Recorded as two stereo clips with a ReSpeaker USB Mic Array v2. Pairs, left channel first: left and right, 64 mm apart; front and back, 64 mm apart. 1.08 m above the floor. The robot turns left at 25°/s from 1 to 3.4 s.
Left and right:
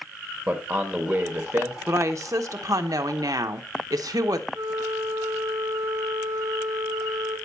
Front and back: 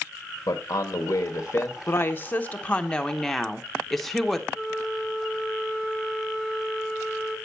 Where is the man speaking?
35° right, 1.3 m; by 1.8 s 55° right, 1.3 m.